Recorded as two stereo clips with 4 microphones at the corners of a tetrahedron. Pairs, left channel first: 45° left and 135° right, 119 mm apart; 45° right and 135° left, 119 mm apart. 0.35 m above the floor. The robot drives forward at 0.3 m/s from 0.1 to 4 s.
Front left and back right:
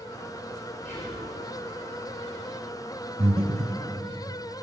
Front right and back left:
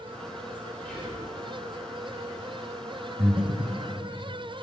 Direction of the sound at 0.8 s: 35° left.